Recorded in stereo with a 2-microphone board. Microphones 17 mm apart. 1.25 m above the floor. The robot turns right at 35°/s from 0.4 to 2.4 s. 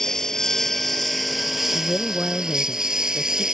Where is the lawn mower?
150° left; by 3.5 s 140° right.